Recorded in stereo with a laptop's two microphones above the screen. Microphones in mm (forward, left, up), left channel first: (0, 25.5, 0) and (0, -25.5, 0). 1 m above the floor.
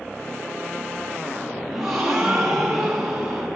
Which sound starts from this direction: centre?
A gasp, at 1.7 s.